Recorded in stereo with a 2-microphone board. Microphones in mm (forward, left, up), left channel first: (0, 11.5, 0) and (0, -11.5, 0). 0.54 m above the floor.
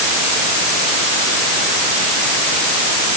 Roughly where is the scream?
I don't hear a scream.